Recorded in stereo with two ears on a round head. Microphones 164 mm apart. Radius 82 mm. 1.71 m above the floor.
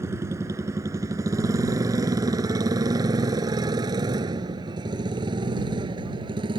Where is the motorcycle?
15° right (ahead or behind); by 6.6 s 25° right (ahead or behind).